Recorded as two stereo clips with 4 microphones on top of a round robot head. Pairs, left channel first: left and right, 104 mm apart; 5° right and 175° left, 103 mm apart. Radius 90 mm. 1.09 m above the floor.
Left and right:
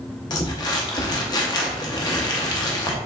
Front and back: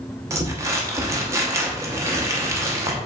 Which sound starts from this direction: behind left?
Crumpling, at 0.3 s.